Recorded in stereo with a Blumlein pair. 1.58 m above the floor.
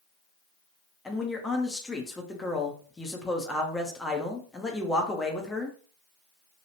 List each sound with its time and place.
1.1 s a man speaking: 10° left, 0.6 m